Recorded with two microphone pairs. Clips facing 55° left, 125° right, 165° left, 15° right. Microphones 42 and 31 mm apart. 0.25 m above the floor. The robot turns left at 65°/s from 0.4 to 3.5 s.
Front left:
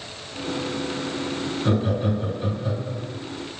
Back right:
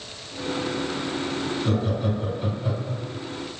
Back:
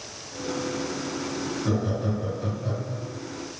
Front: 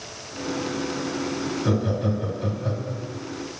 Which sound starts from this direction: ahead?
Laughter, at 1.6 s.